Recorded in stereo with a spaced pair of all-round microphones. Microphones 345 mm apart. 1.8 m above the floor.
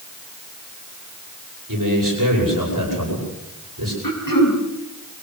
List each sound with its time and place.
1.7 s a man speaking: 65° right (ahead or behind), 9.5 m
4.0 s throat clearing: 70° left (ahead or behind), 4 m